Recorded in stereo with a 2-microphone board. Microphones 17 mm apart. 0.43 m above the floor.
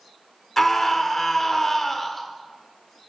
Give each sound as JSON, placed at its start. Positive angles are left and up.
{"t": 0.6, "sound": "a scream", "side_deg": 10, "distance_m": 1.1}